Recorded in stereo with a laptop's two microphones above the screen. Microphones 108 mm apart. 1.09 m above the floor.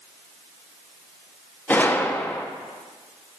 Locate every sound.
1.7 s a gunshot: 15° left (ahead or behind), 0.5 m